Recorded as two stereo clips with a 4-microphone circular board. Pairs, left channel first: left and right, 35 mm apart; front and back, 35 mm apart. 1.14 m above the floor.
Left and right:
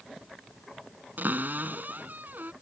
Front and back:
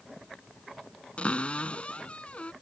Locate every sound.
1.2 s a cupboard door: 55° right